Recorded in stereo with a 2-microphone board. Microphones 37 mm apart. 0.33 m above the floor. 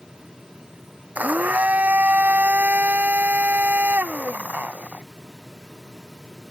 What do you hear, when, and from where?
1.1 s a blender: 50° right (ahead or behind)